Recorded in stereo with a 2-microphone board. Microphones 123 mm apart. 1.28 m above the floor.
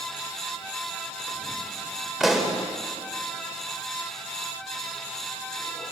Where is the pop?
Centre (ahead or behind), 3 m.